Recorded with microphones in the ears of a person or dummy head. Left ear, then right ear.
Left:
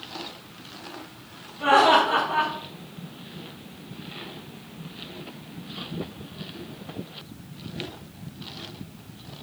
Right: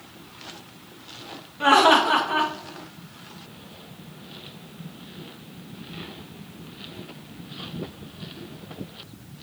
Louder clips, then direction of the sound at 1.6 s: Right 1 dB; 50° right (ahead or behind).